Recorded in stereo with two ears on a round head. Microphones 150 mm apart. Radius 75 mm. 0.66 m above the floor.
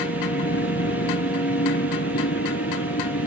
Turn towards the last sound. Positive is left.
turn(degrees=75)  # may be behind; listen again after turning